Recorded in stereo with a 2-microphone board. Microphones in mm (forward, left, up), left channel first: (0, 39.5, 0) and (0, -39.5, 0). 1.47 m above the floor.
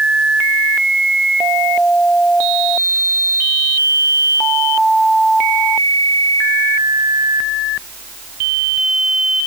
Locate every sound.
Only background noise.